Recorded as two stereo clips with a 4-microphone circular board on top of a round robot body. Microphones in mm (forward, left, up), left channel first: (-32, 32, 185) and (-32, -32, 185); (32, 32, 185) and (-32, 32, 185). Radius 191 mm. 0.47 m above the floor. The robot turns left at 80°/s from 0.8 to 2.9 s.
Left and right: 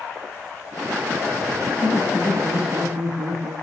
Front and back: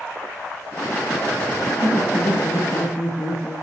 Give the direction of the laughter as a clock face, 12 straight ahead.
11 o'clock.